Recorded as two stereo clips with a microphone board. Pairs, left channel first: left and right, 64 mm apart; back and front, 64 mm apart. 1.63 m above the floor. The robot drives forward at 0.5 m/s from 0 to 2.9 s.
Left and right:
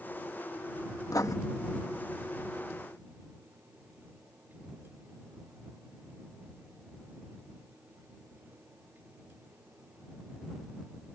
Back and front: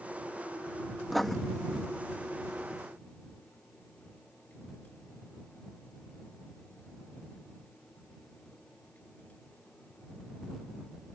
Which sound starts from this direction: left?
Writing, at 1.1 s.